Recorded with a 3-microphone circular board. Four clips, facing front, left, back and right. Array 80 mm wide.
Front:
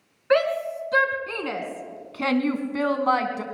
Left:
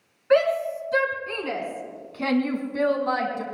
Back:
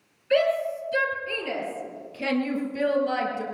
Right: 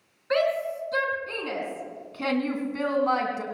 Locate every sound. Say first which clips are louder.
0.3 s a shout: left 4 dB, front 1 dB; 10° left, 4 m; by 3.4 s 10° right, 3 m